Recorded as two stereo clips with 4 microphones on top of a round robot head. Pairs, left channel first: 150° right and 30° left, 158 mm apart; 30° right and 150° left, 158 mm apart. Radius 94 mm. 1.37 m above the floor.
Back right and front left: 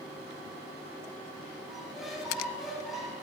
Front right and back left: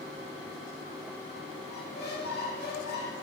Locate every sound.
1.7 s a squeak: 55° right, 8 m